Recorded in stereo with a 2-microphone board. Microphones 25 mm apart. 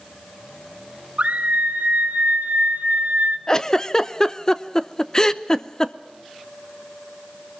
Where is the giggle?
15° left (ahead or behind), 0.7 m.